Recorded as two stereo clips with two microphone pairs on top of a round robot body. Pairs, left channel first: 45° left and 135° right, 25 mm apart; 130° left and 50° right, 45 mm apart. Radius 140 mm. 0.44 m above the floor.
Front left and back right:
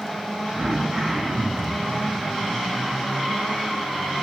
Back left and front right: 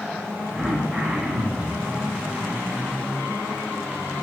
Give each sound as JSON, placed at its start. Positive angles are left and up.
{"t": 0.6, "sound": "throat clearing", "azimuth_deg": -120, "distance_m": 1.3}